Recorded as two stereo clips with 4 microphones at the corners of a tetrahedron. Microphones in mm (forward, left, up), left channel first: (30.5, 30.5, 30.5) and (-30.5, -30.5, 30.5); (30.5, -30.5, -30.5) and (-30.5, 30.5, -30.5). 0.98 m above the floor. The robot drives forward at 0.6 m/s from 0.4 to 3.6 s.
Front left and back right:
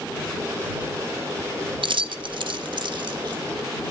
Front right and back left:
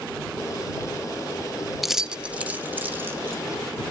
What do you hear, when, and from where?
1.8 s keys jangling: 135° right, 0.7 m; by 3.4 s 160° right, 1.5 m